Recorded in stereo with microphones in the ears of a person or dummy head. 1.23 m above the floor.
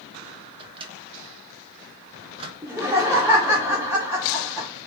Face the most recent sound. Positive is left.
turn(degrees=-10)  # may be behind; listen again after turning